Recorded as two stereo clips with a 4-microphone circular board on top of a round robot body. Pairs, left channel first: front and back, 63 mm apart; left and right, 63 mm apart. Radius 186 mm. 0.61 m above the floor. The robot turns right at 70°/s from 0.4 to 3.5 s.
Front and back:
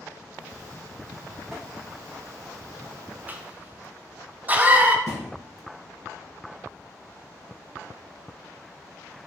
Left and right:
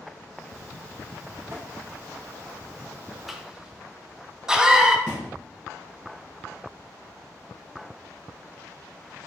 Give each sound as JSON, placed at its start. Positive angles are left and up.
{"t": 1.5, "sound": "tapping", "azimuth_deg": -95, "distance_m": 1.5}
{"t": 3.3, "sound": "a cough", "azimuth_deg": -175, "distance_m": 0.6}
{"t": 5.1, "sound": "a thud", "azimuth_deg": -165, "distance_m": 0.8}